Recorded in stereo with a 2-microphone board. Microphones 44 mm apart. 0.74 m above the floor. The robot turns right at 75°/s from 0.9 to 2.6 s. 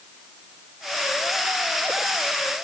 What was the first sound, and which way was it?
Only background noise.